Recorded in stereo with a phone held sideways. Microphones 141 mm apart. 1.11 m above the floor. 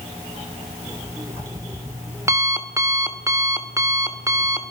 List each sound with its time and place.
0.9 s an alarm clock: 20° right (ahead or behind), 1.3 m